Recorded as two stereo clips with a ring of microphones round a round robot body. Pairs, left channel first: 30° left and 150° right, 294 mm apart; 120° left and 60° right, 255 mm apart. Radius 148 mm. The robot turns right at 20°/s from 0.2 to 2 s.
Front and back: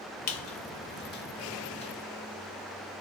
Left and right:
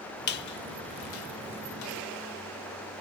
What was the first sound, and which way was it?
A squeak, 70° left.